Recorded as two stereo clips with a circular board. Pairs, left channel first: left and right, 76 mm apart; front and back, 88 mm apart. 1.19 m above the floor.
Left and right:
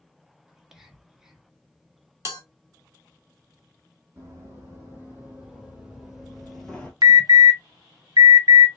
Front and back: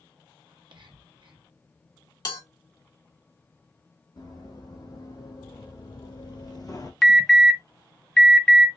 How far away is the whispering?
About 1.0 m.